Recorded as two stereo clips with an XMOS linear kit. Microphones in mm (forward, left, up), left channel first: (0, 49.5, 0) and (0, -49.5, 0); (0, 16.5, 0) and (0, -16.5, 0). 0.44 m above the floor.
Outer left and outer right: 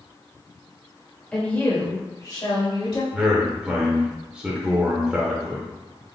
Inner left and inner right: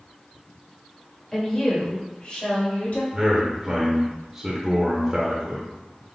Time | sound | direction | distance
1.3 | a woman speaking | 10° left (ahead or behind) | 1.7 m
3.1 | a man speaking | 15° right (ahead or behind) | 0.9 m